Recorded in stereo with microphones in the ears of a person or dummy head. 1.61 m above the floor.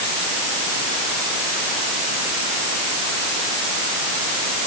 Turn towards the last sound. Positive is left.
No sound to turn to.